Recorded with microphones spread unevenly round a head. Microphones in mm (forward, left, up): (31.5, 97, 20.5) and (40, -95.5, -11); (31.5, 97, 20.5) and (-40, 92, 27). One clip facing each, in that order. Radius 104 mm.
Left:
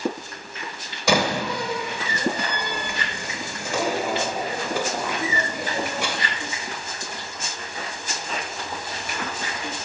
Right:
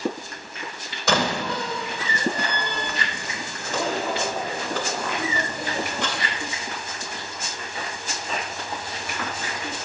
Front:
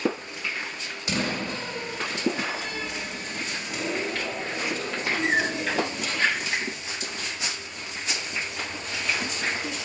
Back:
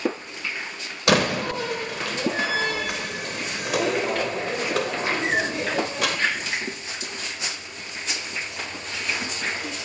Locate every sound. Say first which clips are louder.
1.1 s a door slam: left 2 dB, back 8 dB; 175° left, 2.5 m